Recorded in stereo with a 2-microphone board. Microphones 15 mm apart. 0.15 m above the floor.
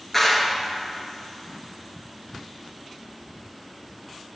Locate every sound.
0.1 s a clap: 15° left (ahead or behind), 1.6 m